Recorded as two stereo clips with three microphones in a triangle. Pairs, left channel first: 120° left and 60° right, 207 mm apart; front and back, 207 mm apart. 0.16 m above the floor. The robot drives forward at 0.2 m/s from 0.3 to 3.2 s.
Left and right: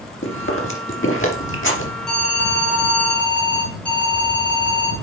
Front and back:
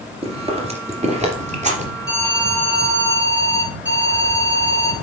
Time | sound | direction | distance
0.2 | chewing | 120° left | 2.5 m
2.1 | an alarm | 155° right | 2.5 m